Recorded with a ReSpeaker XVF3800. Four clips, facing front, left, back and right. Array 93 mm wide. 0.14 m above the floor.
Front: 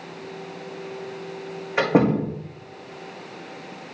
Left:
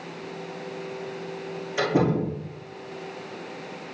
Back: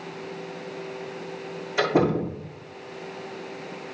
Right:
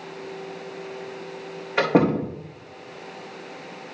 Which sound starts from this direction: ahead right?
A door slam, at 1.8 s.